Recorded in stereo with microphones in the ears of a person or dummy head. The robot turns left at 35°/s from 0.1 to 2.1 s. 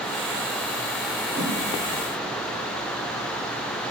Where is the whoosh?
30° right (ahead or behind), 1.4 m.